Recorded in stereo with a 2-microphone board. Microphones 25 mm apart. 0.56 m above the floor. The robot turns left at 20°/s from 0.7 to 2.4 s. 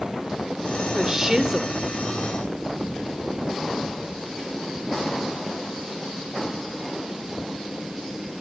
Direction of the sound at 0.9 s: 15° right (ahead or behind).